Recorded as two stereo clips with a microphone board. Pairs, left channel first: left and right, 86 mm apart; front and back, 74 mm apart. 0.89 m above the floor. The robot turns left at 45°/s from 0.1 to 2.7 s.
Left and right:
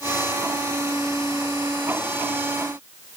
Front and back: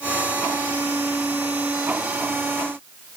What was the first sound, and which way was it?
Only background noise.